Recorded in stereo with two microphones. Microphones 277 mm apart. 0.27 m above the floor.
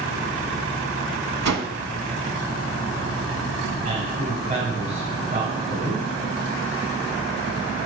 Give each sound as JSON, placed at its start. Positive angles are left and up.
{"t": 1.4, "sound": "a whoosh", "side_deg": -75, "distance_m": 0.6}
{"t": 3.9, "sound": "a man speaking", "side_deg": -30, "distance_m": 1.6}